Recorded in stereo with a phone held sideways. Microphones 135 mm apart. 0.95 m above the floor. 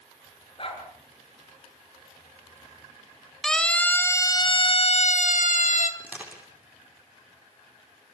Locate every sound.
0.6 s a dog barking: 40° left (ahead or behind), 6.5 m
3.4 s a siren: 5° left (ahead or behind), 2.5 m; by 5.9 s 65° left (ahead or behind), 2.5 m
6.0 s crushing: 10° right (ahead or behind), 8.5 m